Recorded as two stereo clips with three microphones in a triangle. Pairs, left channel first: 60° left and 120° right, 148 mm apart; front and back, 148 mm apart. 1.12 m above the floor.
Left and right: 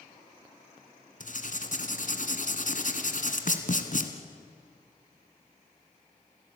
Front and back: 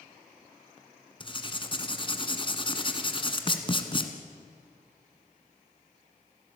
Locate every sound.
1.2 s writing: 50° left, 1.9 m